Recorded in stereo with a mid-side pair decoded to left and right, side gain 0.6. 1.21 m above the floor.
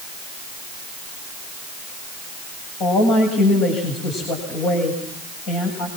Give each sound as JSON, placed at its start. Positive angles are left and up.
{"t": 2.8, "sound": "a woman speaking", "azimuth_deg": 65, "distance_m": 8.0}